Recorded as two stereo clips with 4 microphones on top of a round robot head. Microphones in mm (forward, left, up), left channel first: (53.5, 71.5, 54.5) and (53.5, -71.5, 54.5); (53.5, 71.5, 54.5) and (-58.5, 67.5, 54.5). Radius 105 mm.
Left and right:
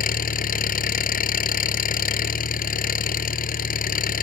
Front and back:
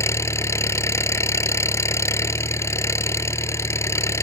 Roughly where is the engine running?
Left.